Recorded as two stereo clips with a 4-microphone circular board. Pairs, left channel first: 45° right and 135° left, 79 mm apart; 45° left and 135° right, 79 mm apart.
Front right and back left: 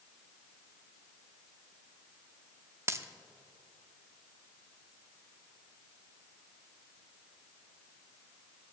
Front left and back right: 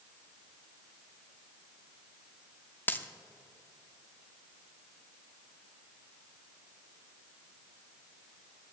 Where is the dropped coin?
100° left, 0.5 m.